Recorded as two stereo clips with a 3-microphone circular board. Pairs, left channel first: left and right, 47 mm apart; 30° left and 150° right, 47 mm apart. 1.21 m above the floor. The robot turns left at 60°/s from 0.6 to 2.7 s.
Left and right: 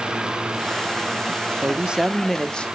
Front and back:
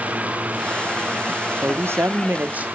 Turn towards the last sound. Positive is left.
turn(degrees=155)